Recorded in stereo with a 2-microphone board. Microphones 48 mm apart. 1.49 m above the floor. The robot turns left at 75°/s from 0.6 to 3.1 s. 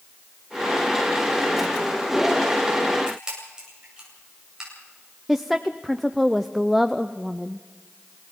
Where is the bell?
No bell in this recording.